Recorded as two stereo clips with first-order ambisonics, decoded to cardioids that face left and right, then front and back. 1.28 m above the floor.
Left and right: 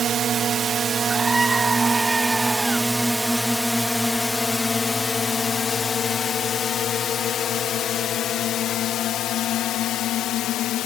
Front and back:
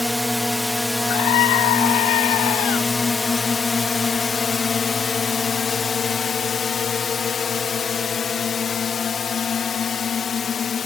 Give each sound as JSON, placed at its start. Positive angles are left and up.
{"t": 0.0, "sound": "a drone", "azimuth_deg": -90}
{"t": 1.1, "sound": "a scream", "azimuth_deg": -5}